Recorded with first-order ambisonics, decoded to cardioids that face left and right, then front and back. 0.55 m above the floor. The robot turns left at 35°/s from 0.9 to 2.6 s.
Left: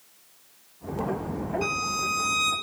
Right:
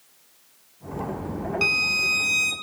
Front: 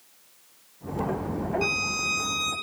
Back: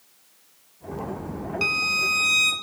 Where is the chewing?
I don't hear chewing.